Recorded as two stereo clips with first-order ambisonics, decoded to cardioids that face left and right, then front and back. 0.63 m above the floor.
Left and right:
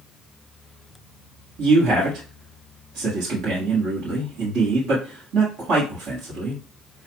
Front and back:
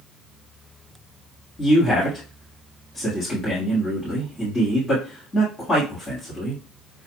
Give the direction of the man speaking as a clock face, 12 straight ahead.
3 o'clock.